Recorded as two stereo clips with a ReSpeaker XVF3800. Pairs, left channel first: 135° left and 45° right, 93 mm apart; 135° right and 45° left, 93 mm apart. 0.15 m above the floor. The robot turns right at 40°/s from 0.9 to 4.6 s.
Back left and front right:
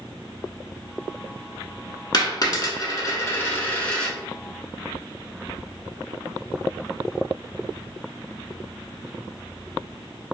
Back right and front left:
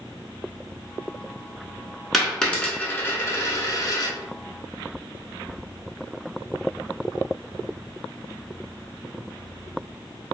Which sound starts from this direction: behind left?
A dropped coin, at 2.1 s.